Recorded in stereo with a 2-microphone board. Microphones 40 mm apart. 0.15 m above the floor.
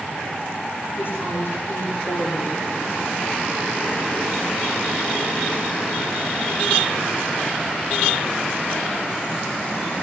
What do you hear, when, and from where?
1.0 s a woman speaking: 60° left (ahead or behind), 8 m